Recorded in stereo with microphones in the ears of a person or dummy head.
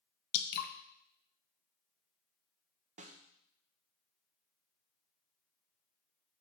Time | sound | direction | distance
0.3 | dripping | 50° left (ahead or behind) | 0.8 m
3.0 | a snare drum | 30° right (ahead or behind) | 0.7 m